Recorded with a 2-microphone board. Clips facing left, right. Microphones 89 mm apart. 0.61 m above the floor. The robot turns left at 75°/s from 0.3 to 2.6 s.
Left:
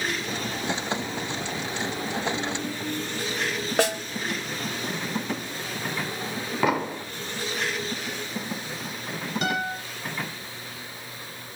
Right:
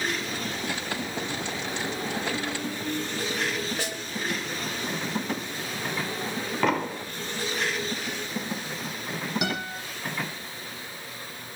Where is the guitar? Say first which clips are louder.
Left 3 dB; 10° right (ahead or behind), 10 m.